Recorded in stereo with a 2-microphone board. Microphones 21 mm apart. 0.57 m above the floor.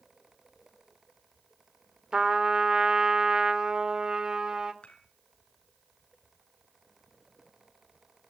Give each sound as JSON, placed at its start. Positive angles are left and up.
{"t": 2.1, "sound": "a trumpet", "side_deg": -40, "distance_m": 1.4}
{"t": 4.8, "sound": "dishes clattering", "side_deg": 85, "distance_m": 4.5}